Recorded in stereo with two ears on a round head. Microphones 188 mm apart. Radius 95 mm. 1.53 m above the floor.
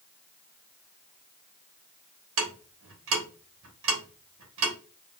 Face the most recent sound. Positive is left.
turn(degrees=-65)  # may be behind; listen again after turning